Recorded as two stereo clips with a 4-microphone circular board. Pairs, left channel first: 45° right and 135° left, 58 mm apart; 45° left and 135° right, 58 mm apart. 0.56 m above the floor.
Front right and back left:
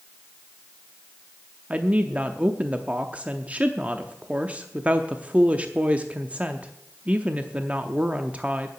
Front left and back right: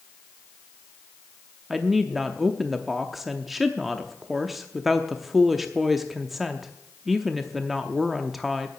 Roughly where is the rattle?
No rattle in this recording.